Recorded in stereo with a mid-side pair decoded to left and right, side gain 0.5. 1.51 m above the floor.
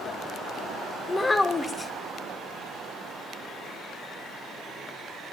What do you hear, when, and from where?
1.1 s a child speaking: 25° left, 1.2 m